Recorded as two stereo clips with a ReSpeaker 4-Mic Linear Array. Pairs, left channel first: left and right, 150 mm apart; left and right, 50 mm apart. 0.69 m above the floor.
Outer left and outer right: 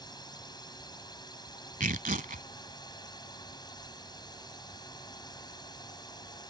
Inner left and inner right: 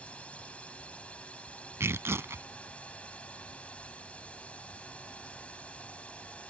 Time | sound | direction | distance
0.0 | a drone | 25° left (ahead or behind) | ?
1.8 | tearing paper | 65° right (ahead or behind) | ?